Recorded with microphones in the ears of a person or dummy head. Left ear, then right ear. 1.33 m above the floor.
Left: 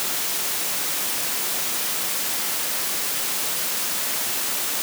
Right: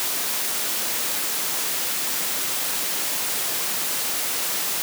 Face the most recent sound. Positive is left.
No sound to turn to.